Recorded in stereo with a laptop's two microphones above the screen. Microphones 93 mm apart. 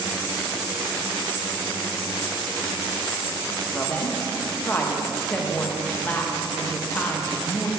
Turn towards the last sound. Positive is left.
turn(degrees=20)  # may be behind; listen again after turning